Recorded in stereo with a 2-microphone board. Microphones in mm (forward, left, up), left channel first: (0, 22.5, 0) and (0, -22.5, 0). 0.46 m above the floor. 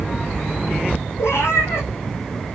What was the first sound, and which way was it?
A cat meowing, 75° left (ahead or behind).